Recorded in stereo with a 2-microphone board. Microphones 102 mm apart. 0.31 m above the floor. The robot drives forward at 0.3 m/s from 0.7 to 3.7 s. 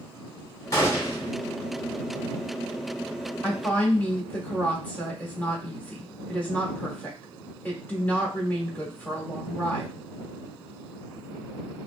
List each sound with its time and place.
0.7 s a gunshot: 30° left (ahead or behind), 1.3 m; by 1.3 s 35° left (ahead or behind), 1.2 m
3.4 s a woman speaking: 20° left (ahead or behind), 1.3 m